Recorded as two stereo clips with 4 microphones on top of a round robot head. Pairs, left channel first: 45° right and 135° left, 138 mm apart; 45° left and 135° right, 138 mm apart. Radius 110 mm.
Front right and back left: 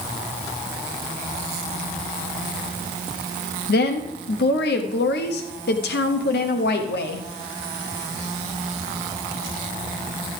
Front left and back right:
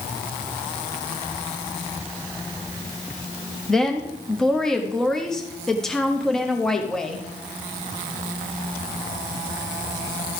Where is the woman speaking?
45° right, 0.8 m.